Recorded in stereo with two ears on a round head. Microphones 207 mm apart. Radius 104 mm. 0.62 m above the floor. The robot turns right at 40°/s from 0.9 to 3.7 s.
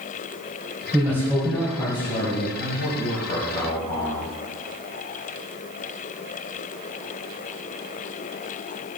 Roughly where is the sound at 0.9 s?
Ahead.